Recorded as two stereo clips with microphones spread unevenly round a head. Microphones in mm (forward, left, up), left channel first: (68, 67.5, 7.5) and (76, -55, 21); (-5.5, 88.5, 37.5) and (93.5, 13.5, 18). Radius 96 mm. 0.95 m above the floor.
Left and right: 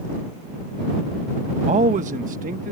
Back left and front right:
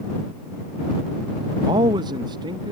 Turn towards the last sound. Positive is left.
turn(degrees=-95)